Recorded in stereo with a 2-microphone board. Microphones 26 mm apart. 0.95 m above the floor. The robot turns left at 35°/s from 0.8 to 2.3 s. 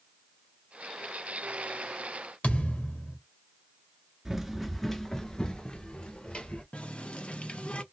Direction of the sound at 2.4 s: 65° left (ahead or behind).